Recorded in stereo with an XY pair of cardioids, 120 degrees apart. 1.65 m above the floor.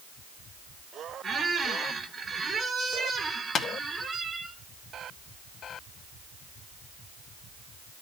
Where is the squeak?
35° right, 2.0 m.